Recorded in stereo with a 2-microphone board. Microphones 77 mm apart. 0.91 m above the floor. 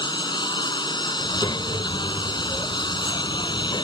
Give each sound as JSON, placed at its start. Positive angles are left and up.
{"t": 0.0, "sound": "a lawn mower", "side_deg": 80}
{"t": 1.2, "sound": "a child speaking", "side_deg": 75}